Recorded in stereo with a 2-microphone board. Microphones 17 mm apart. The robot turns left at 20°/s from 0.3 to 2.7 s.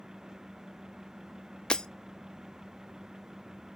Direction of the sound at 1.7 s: 80° left.